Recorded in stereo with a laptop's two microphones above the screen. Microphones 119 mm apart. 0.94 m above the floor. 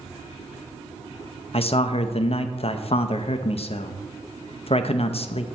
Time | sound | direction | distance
1.5 | a man speaking | 55° left (ahead or behind) | 0.6 m